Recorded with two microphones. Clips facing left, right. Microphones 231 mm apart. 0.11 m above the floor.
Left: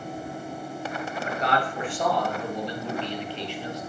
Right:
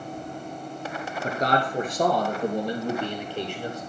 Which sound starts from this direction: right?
A man speaking, at 1.2 s.